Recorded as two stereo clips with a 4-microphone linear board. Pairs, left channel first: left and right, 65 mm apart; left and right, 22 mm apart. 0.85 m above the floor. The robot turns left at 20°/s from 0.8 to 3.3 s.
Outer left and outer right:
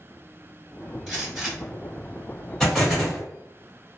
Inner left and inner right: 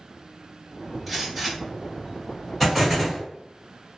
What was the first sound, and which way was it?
A gunshot, 5° left (ahead or behind).